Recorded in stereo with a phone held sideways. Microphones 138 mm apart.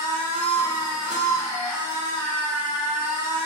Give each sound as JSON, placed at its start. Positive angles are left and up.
{"t": 0.0, "sound": "a machine running", "side_deg": -35, "distance_m": 1.6}